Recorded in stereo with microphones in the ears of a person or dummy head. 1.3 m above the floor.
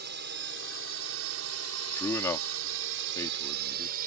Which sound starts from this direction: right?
A drone, at 0.0 s.